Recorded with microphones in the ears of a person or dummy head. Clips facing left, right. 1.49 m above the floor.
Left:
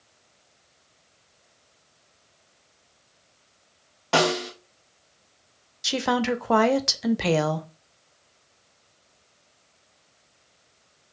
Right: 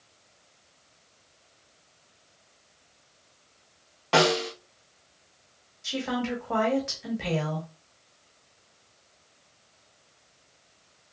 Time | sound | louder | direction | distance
4.1 | a snare drum | even | 5° left (ahead or behind) | 0.5 m
5.8 | a woman speaking | left 5 dB | 70° left (ahead or behind) | 0.5 m